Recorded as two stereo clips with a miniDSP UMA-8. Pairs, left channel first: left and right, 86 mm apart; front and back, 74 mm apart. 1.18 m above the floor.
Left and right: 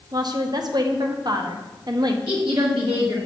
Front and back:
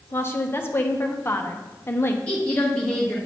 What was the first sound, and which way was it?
A woman speaking, 55° right.